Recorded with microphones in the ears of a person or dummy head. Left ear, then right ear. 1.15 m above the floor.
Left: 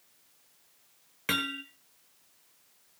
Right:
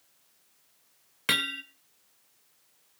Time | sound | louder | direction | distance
1.3 | hammering | right 3 dB | 25° right (ahead or behind) | 1.6 m